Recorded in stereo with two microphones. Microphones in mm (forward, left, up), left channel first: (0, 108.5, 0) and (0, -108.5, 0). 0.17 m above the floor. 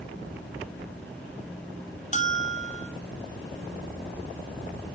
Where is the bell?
35° left (ahead or behind), 0.8 m.